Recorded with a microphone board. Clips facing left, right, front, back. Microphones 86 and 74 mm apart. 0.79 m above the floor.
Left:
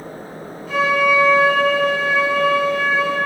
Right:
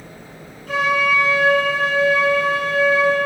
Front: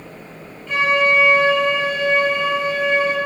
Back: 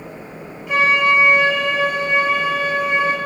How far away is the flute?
About 1.6 m.